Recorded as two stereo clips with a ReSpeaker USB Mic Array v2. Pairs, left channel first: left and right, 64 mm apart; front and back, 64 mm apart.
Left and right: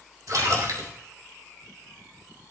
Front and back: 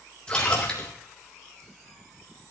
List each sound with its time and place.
0.3 s a splash: 75° right, 3.5 m